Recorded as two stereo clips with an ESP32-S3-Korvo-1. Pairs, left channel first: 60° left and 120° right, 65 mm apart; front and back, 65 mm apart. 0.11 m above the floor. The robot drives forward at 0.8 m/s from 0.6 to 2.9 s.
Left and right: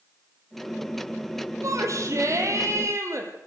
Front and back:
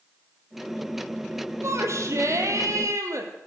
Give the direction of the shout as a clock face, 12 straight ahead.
5 o'clock.